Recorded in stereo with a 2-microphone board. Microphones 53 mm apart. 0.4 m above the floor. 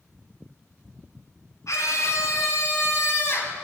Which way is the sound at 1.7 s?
75° left (ahead or behind).